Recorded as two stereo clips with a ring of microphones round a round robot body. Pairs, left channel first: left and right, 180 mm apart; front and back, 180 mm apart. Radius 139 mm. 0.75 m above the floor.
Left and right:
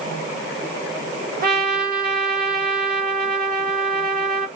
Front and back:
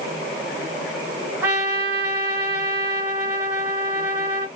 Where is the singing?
I don't hear singing.